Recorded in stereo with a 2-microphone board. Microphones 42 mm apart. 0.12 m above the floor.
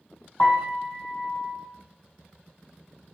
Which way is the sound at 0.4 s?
55° left (ahead or behind).